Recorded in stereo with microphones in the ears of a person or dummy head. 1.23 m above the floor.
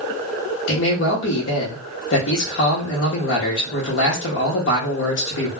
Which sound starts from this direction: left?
A man speaking, at 0.7 s.